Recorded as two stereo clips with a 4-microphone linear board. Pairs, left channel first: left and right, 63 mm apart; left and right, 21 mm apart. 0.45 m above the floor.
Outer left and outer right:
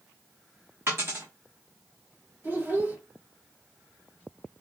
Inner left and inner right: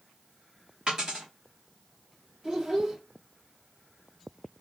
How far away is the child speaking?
About 2 m.